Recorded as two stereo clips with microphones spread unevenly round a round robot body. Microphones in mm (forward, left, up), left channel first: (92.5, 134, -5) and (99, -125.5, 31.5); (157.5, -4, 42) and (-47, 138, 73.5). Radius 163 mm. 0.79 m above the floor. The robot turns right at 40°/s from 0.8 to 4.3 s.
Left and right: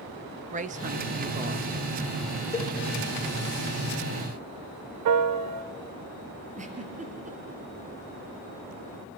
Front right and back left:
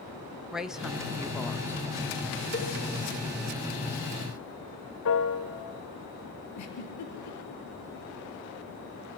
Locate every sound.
0.5 s a woman speaking: 110° right, 0.8 m; by 1.8 s 70° right, 0.8 m
2.5 s a cowbell: 10° left, 3 m; by 2.7 s 15° left, 3 m
5.0 s a piano: 85° right, 1.1 m
6.5 s a giggle: 30° right, 5 m